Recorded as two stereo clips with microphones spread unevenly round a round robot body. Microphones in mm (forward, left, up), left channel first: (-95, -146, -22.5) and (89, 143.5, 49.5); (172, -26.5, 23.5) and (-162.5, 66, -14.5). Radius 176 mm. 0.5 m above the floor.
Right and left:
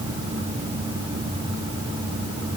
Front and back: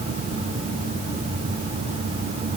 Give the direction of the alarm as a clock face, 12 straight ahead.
I don't hear an alarm.